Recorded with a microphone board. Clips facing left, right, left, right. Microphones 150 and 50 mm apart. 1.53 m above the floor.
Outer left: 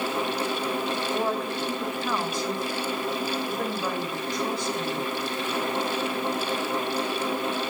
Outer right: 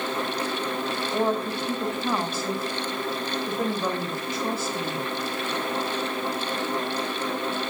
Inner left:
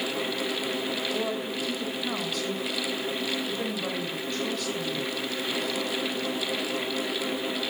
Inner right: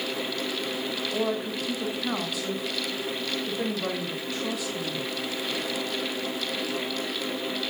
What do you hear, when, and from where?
1.1 s a woman speaking: 20° right (ahead or behind), 2.5 m